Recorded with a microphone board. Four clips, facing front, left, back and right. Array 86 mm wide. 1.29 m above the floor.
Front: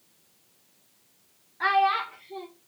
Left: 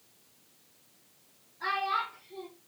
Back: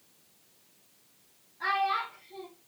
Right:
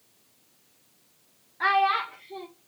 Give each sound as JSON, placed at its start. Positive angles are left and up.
{"t": 1.6, "sound": "a child speaking", "azimuth_deg": -50, "distance_m": 0.5}